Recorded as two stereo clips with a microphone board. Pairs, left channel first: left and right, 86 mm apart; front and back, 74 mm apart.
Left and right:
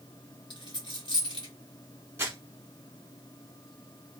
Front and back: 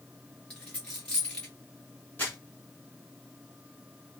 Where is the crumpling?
50° right, 1.9 m.